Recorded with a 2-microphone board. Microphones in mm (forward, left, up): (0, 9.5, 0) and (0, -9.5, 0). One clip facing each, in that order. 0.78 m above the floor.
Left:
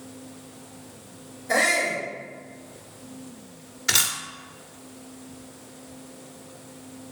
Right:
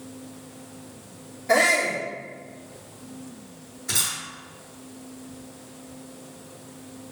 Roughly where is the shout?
Right.